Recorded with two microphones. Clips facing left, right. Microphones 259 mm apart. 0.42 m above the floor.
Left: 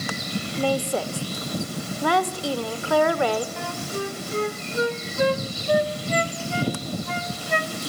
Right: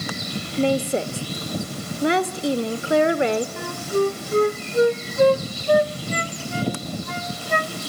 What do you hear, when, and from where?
0.6 s a woman speaking: 20° right (ahead or behind), 0.9 m
3.6 s a flute: 45° right (ahead or behind), 0.8 m